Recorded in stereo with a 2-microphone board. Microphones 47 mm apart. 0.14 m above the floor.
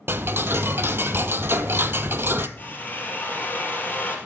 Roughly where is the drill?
Left.